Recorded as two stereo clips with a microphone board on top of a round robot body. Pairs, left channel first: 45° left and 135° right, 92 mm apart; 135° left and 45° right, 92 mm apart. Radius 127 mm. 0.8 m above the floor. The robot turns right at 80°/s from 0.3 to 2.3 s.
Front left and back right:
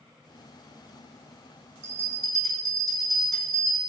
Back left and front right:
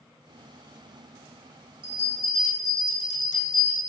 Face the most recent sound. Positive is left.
turn(degrees=-45)